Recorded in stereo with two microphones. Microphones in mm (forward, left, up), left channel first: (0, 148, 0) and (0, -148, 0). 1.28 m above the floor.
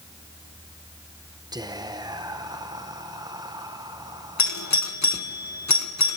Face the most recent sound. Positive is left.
turn(degrees=65)  # may be behind; listen again after turning